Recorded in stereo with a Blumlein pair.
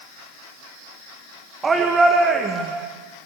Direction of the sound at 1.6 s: 15° right.